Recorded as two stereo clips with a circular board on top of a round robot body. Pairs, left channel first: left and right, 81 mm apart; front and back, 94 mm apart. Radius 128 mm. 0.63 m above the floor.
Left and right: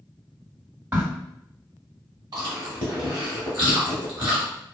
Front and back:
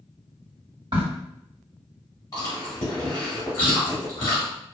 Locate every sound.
0.9 s a crack: 150° right, 1.8 m
2.3 s chewing: 55° right, 0.9 m